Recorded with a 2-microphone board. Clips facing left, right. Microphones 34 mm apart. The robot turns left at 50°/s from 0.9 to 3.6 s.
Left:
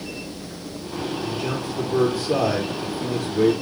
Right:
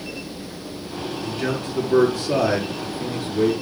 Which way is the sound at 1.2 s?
60° right.